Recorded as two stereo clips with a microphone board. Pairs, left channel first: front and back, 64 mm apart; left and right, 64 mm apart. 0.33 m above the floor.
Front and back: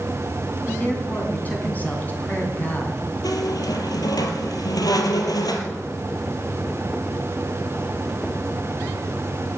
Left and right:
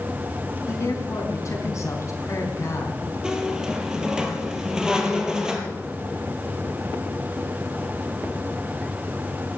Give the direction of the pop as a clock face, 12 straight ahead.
No pop in this recording.